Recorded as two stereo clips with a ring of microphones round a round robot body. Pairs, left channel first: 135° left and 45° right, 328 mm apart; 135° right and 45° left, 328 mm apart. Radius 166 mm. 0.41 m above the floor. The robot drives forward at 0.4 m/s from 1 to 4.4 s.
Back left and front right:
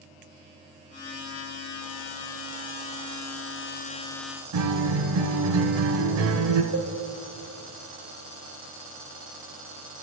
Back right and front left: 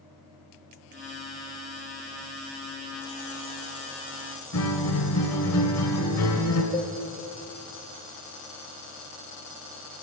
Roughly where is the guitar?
Right.